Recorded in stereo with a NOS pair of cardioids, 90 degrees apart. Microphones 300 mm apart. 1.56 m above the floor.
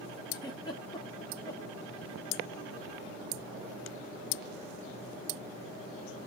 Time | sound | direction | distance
0.3 | a giggle | 10° left | 1.2 m